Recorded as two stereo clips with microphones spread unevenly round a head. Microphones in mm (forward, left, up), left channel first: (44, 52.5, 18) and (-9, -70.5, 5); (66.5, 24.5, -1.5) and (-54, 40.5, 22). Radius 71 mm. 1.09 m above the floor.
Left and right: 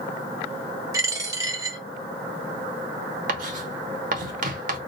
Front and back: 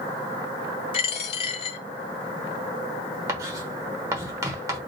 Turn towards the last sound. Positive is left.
turn(degrees=-135)